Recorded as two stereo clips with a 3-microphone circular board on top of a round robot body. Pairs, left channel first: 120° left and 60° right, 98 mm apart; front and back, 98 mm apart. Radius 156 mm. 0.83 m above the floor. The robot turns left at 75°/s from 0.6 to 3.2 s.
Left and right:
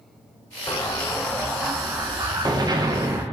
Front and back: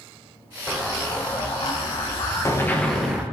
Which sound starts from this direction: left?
An explosion, at 0.7 s.